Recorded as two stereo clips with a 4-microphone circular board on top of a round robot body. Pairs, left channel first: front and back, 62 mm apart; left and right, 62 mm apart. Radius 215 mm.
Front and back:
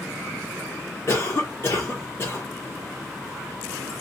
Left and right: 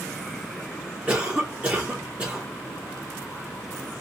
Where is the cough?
35° right, 1.0 m.